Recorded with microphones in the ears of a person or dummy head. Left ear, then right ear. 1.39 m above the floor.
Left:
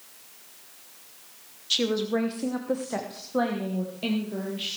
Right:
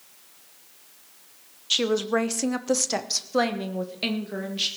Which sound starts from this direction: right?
A woman speaking, at 1.7 s.